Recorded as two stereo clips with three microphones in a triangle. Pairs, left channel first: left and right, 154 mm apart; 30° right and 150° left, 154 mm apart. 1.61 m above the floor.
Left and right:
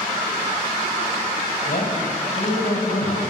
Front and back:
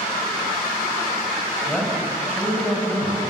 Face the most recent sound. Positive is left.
turn(degrees=55)